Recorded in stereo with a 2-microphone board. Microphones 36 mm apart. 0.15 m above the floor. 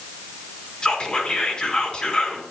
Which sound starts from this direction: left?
Whispering, at 0.8 s.